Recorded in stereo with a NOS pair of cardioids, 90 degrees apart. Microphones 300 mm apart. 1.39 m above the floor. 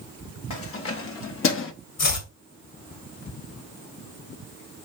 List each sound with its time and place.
0.5 s keys jangling: 50° left, 1.7 m
2.0 s chopping: 55° left, 1.9 m